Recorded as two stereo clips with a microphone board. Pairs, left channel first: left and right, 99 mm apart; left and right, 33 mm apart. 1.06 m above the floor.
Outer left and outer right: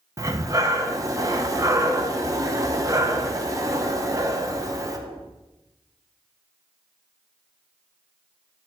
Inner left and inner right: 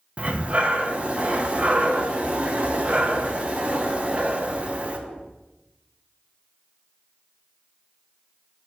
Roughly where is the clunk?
I don't hear a clunk.